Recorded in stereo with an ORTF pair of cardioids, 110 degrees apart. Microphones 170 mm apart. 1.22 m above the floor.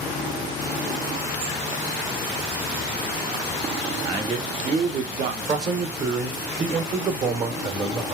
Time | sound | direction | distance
4.0 | a man speaking | 30° right | 1.0 m
5.5 | a man speaking | 40° right | 0.8 m